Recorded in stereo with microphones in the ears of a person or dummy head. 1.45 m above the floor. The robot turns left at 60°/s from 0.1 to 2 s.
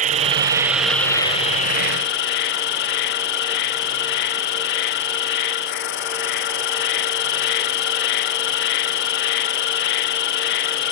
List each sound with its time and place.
0.0 s an insect: 140° right; by 10.9 s 105° left